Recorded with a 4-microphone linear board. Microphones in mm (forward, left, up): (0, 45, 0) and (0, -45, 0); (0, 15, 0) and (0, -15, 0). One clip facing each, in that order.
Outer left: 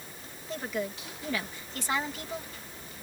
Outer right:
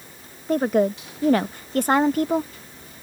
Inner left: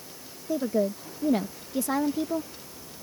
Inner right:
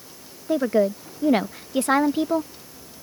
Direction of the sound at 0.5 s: 50° right (ahead or behind).